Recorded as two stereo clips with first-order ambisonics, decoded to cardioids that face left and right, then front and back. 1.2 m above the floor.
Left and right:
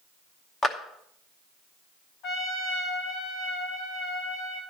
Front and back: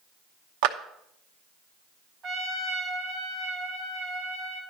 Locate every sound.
0.6 s a clap: 160° left, 0.8 m
2.2 s a trumpet: 125° left, 2 m